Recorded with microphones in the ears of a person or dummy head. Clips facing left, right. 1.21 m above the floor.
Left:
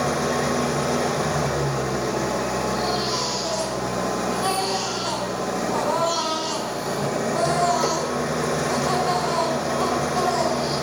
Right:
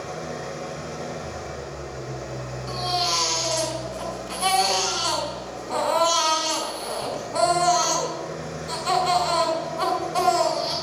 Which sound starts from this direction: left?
An engine running, at 0.0 s.